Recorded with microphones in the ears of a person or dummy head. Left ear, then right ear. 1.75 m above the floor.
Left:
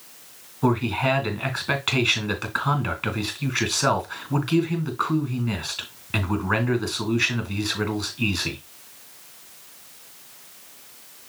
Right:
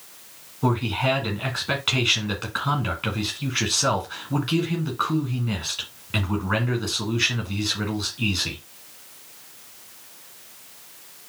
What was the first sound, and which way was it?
A man speaking, 25° left (ahead or behind).